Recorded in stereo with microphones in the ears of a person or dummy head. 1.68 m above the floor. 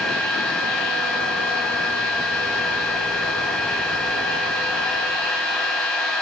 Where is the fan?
Centre (ahead or behind), 2.5 m.